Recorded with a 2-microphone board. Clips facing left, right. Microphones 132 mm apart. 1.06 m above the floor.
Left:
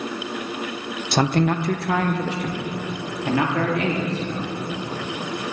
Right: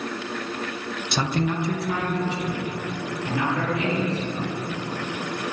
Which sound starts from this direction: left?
A man speaking, at 1.1 s.